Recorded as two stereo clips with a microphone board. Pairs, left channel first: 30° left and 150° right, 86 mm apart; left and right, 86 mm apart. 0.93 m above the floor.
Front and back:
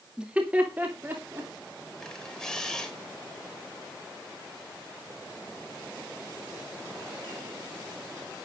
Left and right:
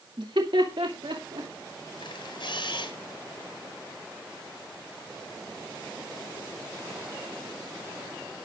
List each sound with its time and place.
0.2 s laughter: 70° right, 2.0 m; by 1.5 s 90° right, 3 m
2.0 s a camera shutter: 110° left, 3.5 m